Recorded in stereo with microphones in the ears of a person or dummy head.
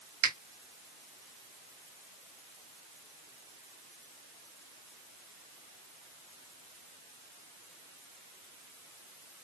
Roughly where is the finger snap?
Right.